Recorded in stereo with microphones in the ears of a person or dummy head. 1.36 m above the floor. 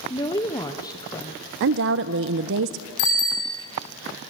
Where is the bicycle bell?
60° left (ahead or behind), 3.5 m.